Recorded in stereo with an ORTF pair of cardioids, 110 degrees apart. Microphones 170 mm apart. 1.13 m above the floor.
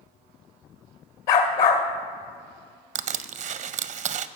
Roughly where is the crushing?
Ahead right.